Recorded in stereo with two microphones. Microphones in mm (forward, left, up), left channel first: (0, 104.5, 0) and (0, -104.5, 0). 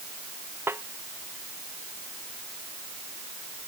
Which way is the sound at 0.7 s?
10° right (ahead or behind).